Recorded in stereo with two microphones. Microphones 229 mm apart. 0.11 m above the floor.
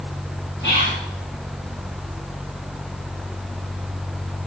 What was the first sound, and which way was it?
Whispering, 50° left (ahead or behind).